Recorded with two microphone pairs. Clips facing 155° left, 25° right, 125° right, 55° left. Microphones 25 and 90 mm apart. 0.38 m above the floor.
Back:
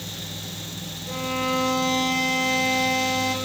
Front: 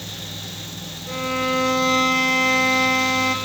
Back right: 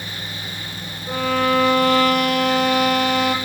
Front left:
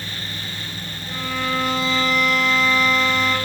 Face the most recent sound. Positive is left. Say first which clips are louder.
# front 3 dB, back right 7 dB
turn(degrees=-100)